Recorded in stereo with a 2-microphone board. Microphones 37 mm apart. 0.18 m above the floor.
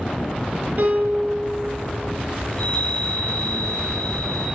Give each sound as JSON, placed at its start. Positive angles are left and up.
{"t": 0.8, "sound": "a piano", "side_deg": -50, "distance_m": 2.5}
{"t": 2.5, "sound": "a chime", "side_deg": 25, "distance_m": 2.0}